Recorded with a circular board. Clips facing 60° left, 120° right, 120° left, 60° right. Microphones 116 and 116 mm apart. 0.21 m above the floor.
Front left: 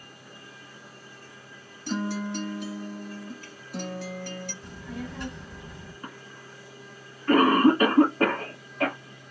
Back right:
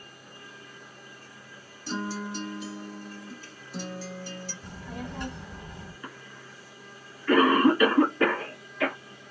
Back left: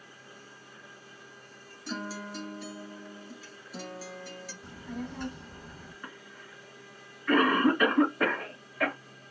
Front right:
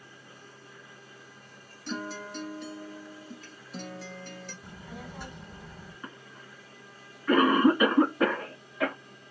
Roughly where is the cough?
Ahead.